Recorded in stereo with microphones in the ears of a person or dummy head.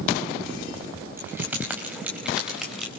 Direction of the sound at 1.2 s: 5° right (ahead or behind).